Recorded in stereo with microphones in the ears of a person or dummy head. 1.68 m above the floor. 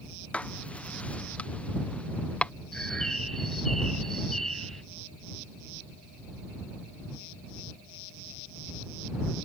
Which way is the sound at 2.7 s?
5° left (ahead or behind).